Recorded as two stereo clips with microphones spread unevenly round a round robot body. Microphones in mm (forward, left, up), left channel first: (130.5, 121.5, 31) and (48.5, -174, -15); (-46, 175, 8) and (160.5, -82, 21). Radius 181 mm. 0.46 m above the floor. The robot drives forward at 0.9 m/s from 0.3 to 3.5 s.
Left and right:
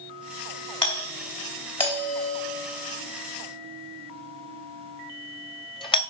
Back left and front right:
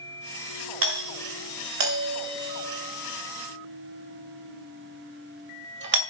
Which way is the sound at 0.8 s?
Straight ahead.